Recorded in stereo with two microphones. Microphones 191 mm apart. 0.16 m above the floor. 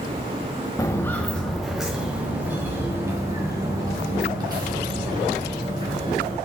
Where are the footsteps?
15° left (ahead or behind), 1.2 m; by 6.4 s 25° right (ahead or behind), 4.5 m.